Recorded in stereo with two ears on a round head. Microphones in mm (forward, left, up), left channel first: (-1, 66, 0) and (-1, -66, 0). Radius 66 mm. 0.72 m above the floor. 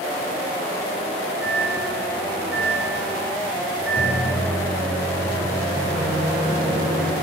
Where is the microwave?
10° right (ahead or behind), 3.5 m.